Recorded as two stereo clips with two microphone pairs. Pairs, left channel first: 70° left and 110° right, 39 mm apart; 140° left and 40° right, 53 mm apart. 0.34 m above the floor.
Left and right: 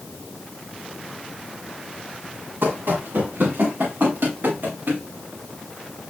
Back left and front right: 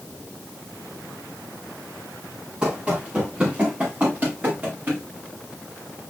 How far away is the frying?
I don't hear frying.